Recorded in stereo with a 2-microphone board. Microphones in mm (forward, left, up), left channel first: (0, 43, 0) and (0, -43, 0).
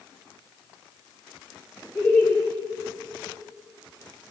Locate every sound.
1.9 s laughter: 20° left (ahead or behind), 1.6 m